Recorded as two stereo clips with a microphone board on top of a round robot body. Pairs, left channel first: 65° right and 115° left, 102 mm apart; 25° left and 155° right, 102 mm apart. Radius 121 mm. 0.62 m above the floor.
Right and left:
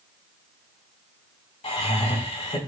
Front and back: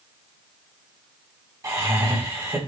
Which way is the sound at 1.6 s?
100° right.